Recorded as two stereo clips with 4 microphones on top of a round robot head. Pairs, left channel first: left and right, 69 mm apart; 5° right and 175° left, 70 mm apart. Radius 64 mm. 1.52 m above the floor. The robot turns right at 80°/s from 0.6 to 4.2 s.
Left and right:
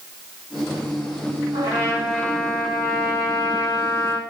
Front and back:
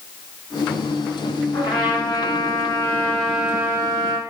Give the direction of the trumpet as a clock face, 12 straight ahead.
2 o'clock.